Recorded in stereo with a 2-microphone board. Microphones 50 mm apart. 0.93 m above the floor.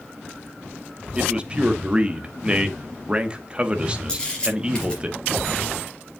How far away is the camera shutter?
About 4 m.